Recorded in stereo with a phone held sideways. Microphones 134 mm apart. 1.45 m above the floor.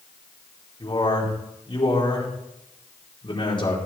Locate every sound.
0.8 s a man speaking: 35° left (ahead or behind), 5 m